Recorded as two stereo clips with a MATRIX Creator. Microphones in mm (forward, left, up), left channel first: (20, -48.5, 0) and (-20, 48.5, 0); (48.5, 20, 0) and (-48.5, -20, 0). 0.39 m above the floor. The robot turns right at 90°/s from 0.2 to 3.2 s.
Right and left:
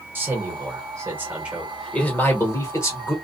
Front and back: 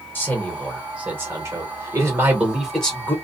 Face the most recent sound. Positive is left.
turn(degrees=-25)